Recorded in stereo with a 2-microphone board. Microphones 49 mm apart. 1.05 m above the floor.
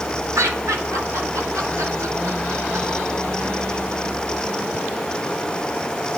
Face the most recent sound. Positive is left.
turn(degrees=-65)  # may be behind; listen again after turning